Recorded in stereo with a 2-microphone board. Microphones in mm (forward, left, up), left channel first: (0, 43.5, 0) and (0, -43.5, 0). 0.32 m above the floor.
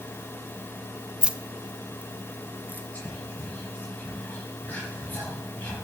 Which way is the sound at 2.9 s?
20° left (ahead or behind).